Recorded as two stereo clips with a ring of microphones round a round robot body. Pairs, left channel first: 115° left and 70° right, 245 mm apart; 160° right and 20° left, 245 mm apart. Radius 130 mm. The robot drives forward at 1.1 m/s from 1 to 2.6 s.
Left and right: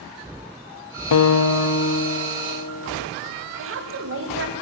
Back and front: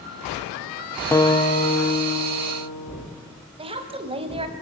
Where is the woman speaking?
45° right, 2.5 m.